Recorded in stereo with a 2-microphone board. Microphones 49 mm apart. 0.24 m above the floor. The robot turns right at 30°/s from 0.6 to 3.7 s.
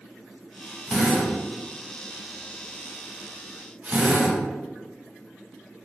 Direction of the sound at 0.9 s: 5° left (ahead or behind).